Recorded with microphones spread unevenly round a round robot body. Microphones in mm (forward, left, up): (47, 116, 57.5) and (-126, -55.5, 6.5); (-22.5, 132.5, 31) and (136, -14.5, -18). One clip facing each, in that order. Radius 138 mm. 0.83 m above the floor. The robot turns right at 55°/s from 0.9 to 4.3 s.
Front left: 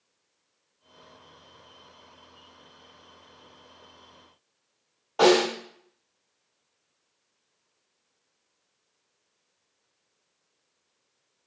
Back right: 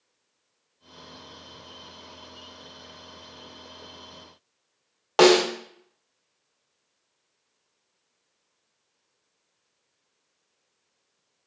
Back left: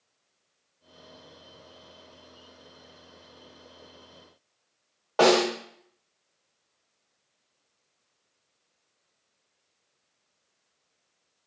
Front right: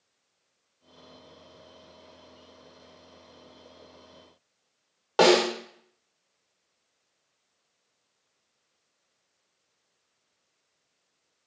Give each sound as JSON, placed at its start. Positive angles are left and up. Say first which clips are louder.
{"t": 5.2, "sound": "a snare drum", "louder": "back right 3 dB, front right 1 dB", "azimuth_deg": -105, "distance_m": 0.7}